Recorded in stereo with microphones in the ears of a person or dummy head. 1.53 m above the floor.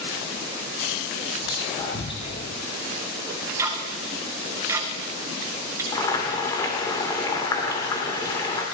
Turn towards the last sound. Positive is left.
turn(degrees=20)  # may be behind; listen again after turning